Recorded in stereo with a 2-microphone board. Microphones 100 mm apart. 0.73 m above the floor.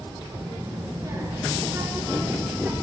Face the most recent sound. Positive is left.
turn(degrees=-20)  # may be behind; listen again after turning